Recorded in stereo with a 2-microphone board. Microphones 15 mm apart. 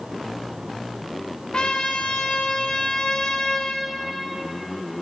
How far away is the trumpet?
About 1.2 m.